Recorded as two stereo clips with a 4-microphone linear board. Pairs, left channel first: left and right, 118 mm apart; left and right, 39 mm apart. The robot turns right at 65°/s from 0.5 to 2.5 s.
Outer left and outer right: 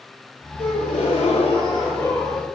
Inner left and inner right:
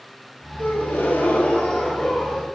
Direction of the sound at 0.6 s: 65° left.